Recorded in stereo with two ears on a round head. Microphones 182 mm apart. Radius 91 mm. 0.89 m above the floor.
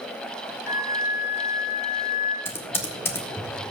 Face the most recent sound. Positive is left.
turn(degrees=10)  # may be behind; listen again after turning